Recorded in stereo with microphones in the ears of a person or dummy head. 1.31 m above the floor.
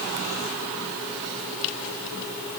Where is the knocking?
No knocking in this recording.